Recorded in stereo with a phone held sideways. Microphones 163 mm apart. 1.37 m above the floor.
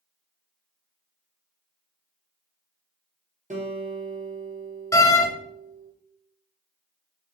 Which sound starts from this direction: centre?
A door slam, at 4.9 s.